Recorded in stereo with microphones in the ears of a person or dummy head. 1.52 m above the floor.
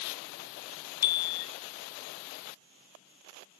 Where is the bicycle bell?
55° left (ahead or behind), 3 m.